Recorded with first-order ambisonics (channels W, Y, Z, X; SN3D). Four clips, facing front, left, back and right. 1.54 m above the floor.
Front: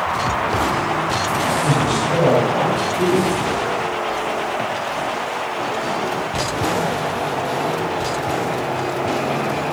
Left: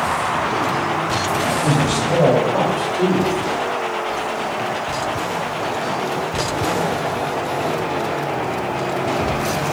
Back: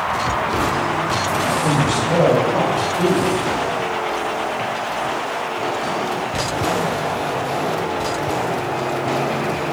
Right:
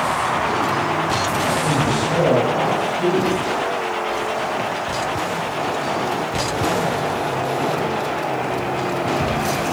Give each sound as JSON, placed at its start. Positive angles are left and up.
{"t": 1.6, "sound": "a man speaking", "azimuth_deg": 70, "distance_m": 6.0}